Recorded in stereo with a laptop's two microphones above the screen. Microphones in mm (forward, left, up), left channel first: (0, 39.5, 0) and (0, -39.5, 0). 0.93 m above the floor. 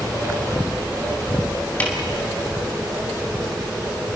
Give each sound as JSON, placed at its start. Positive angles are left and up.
{"t": 1.8, "sound": "a snare drum", "side_deg": 20, "distance_m": 2.5}